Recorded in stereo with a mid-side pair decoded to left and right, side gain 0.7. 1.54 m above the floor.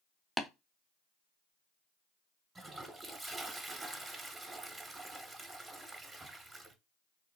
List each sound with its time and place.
0.4 s tapping: straight ahead, 0.7 m
2.5 s a toilet flushing: 15° right, 0.8 m